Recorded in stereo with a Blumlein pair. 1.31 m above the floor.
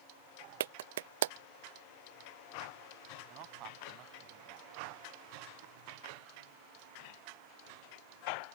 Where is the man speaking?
40° right.